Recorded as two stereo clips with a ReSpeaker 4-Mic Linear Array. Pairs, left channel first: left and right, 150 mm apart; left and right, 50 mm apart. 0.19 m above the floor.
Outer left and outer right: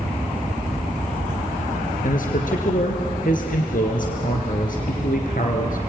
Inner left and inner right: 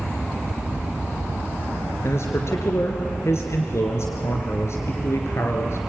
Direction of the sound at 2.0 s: 65° left (ahead or behind).